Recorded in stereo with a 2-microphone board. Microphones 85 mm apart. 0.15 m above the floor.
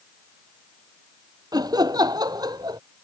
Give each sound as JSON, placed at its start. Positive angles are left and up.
{"t": 1.5, "sound": "laughter", "side_deg": -50}